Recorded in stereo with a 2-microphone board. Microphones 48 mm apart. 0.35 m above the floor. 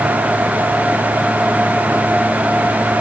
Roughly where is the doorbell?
I don't hear a doorbell.